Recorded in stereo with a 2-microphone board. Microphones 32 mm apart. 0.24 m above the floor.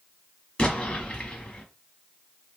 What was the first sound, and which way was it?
An explosion, 30° left (ahead or behind).